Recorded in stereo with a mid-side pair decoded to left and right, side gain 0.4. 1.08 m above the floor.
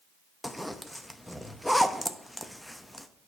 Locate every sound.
0.4 s a zipper: 5° left, 0.7 m